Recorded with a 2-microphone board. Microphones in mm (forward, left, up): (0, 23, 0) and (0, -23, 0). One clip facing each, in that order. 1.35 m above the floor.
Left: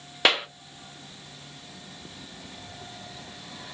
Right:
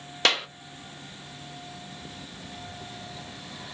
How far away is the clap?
About 0.5 m.